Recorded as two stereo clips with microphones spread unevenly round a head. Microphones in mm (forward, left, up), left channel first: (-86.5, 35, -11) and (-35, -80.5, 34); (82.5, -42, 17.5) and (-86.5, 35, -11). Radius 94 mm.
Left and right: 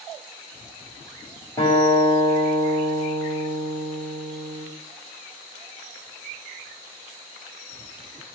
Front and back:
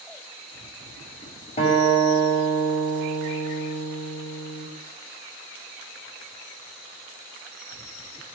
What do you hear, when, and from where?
1.6 s a guitar: 35° left, 6 m